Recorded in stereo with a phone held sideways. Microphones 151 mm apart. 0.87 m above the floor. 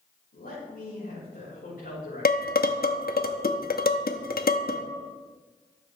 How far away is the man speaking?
About 4.5 m.